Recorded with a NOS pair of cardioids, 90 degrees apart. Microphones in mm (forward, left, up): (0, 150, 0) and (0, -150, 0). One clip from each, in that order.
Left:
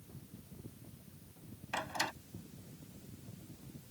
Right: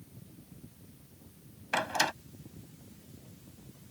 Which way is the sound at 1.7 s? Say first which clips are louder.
Right 8 dB; 50° right.